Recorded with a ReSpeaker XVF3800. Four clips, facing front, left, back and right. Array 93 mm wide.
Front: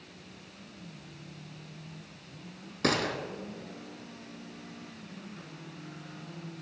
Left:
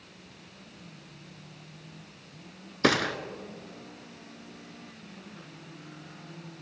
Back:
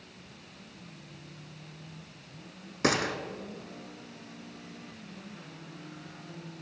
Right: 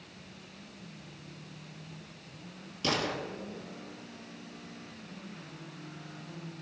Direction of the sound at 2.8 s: 105° left.